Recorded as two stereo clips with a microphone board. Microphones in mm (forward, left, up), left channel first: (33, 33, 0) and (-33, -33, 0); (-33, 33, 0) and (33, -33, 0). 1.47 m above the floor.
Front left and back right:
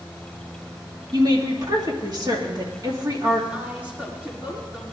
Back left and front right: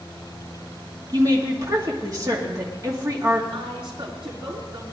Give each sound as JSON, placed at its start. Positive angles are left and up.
{"t": 1.1, "sound": "a woman speaking", "azimuth_deg": -95, "distance_m": 2.5}
{"t": 3.5, "sound": "a woman speaking", "azimuth_deg": -60, "distance_m": 4.5}